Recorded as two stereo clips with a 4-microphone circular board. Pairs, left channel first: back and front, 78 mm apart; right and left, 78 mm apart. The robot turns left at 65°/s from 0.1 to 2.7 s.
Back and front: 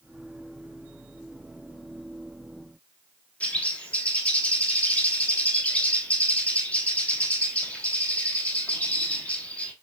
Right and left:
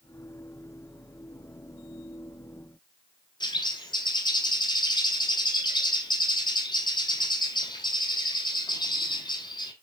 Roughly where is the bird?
Right.